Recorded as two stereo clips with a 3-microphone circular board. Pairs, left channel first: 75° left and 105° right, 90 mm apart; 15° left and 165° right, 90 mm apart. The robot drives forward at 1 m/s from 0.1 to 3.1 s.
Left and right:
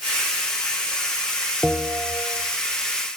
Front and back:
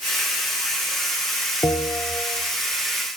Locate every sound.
1.6 s a bell: 20° right, 1.2 m; by 2.5 s 70° right, 0.7 m